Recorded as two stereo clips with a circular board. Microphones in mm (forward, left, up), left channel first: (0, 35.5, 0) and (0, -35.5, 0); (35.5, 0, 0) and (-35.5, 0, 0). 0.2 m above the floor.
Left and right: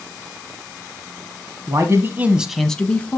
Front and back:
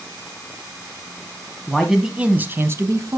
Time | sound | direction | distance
1.7 | a man speaking | 85° right | 1.4 m